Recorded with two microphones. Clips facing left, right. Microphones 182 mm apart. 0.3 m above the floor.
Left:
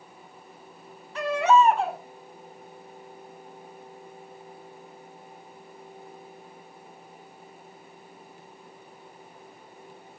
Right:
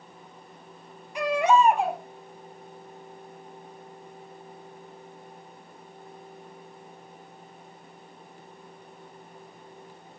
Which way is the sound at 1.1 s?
15° right (ahead or behind).